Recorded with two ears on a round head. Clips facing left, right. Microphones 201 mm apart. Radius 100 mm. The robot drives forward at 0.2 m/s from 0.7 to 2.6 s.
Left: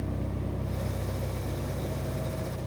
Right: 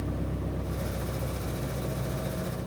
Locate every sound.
0.0 s an engine running: 5° right (ahead or behind), 1.0 m